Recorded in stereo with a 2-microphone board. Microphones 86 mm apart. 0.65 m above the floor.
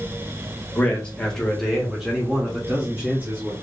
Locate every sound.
0.8 s a man speaking: 20° left (ahead or behind), 1.1 m; by 3.5 s 25° right (ahead or behind), 1.5 m